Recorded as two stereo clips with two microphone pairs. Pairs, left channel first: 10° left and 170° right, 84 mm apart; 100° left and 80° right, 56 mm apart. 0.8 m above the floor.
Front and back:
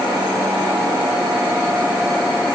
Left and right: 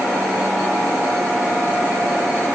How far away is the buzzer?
No buzzer in this recording.